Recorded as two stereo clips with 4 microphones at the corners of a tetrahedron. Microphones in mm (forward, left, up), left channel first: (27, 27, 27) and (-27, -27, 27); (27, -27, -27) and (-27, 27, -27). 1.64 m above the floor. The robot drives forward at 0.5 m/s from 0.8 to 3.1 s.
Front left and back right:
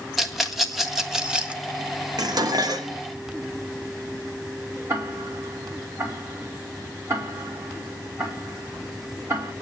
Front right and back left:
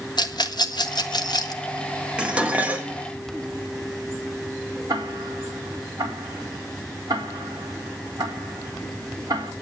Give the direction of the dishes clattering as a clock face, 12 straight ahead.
5 o'clock.